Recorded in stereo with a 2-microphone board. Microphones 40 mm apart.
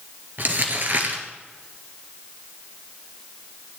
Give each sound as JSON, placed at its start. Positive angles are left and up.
{"t": 0.4, "sound": "crumpling", "side_deg": -50, "distance_m": 2.0}